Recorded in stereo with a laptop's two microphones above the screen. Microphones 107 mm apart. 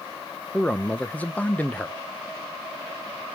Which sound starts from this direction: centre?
A man speaking, at 0.5 s.